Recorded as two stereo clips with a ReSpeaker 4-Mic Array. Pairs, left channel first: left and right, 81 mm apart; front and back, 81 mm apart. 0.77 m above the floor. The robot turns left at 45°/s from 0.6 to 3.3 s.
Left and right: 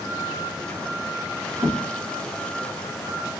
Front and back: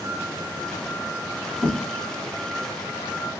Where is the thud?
20° right, 2.5 m; by 1.8 s 30° right, 2.5 m.